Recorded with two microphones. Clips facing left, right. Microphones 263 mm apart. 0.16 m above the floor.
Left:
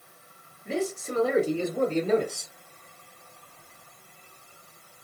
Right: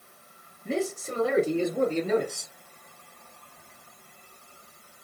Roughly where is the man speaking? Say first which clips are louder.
Even; right.